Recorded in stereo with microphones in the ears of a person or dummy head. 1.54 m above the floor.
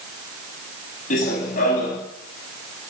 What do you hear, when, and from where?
1.1 s running footsteps: 40° left (ahead or behind), 6 m